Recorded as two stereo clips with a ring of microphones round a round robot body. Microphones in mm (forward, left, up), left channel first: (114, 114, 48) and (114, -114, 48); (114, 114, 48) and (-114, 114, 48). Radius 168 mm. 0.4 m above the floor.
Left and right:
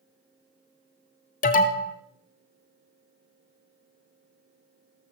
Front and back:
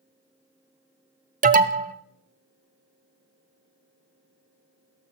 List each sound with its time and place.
1.4 s an alarm: 135° left, 0.9 m